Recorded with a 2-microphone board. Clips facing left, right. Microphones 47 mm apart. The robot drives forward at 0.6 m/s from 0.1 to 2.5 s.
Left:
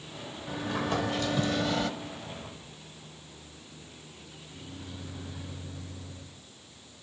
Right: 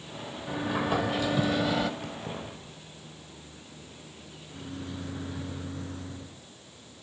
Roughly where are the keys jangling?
Right.